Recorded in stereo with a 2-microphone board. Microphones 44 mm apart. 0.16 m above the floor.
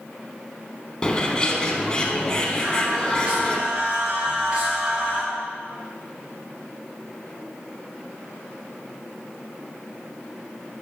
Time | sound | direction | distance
1.0 | a bird | 15° left (ahead or behind) | 0.8 m
2.6 | singing | 20° right (ahead or behind) | 2.5 m